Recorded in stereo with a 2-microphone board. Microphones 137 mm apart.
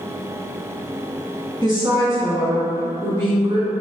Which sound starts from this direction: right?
A woman speaking, at 1.6 s.